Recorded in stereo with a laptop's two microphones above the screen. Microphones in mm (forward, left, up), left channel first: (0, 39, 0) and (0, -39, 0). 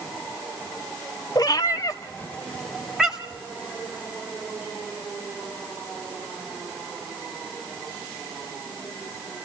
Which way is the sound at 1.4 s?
60° left (ahead or behind).